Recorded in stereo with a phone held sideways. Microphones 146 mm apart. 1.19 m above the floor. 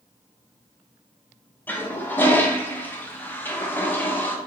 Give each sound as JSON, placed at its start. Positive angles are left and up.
{"t": 1.7, "sound": "a toilet flushing", "side_deg": 15, "distance_m": 0.6}